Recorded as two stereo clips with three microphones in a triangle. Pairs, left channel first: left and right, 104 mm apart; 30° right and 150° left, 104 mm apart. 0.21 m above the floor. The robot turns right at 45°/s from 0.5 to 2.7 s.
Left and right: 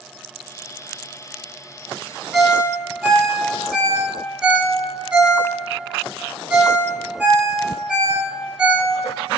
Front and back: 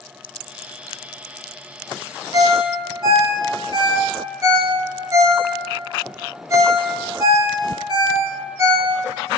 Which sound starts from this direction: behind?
A ringtone, at 2.3 s.